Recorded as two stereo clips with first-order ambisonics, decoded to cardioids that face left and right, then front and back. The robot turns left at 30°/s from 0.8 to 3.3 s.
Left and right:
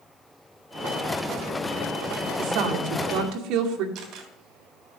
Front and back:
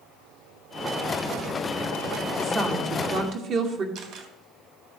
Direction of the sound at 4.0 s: 140° right.